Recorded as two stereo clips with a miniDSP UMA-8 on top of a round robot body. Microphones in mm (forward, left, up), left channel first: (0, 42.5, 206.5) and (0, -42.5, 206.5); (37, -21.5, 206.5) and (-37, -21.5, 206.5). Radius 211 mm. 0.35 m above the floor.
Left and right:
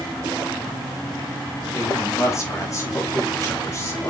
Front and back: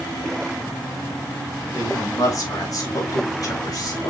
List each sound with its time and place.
1.7 s a woman speaking: 40° left, 4 m